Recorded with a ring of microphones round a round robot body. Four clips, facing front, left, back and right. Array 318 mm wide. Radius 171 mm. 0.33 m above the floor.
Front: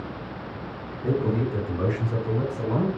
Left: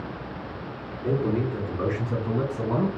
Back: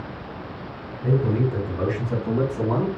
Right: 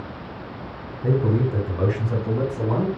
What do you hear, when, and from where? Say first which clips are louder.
1.0 s a man speaking: right 3 dB, back 2 dB; 90° right, 2 m; by 2.9 s 140° right, 3 m